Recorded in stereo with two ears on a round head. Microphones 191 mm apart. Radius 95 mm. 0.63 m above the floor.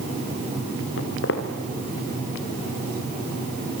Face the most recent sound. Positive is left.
turn(degrees=60)  # may be behind; listen again after turning